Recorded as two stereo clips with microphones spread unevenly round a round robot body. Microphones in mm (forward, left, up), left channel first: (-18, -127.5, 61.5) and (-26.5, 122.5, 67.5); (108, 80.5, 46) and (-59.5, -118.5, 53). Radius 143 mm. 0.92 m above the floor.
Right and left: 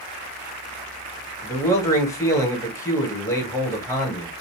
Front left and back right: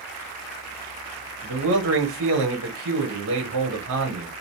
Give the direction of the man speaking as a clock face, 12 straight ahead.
5 o'clock.